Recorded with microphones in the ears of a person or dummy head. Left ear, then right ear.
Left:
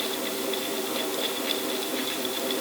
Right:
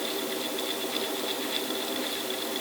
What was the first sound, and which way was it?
Only background noise.